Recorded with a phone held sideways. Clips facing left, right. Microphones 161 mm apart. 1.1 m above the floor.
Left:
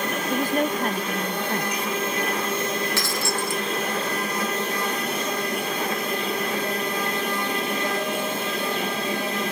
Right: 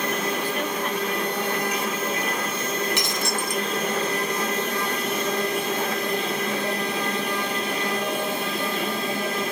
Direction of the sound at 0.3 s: 45° left (ahead or behind).